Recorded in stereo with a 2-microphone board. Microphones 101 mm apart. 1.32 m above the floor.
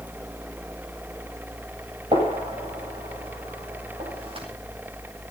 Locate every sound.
2.1 s a gunshot: 70° right (ahead or behind), 8.5 m